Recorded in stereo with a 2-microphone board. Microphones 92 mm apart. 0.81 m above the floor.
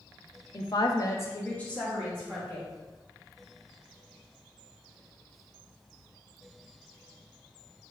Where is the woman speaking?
50° left (ahead or behind), 0.7 m; by 2.7 s centre (ahead or behind), 2.5 m.